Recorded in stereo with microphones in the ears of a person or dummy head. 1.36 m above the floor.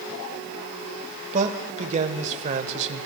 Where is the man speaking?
35° right (ahead or behind), 1.1 m.